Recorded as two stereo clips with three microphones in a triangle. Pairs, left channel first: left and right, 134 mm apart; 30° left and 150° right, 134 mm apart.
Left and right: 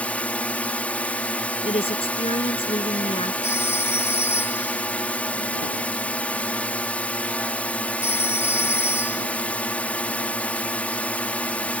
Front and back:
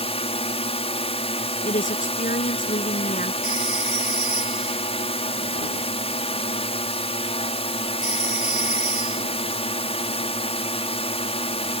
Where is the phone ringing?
20° left.